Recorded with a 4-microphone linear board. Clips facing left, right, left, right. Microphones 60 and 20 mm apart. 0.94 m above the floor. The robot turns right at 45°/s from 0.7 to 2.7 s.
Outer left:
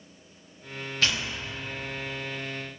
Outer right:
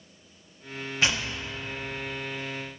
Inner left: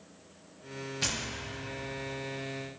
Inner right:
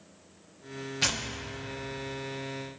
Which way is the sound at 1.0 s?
20° right (ahead or behind).